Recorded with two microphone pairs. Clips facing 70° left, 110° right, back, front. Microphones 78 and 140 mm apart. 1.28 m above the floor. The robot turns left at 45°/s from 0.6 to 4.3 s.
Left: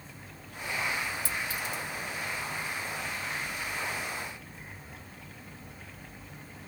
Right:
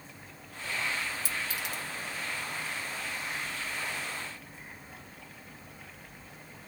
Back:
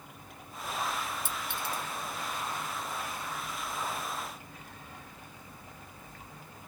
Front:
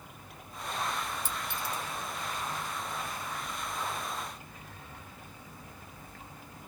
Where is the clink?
95° right, 0.9 m; by 1.8 s 125° right, 0.9 m.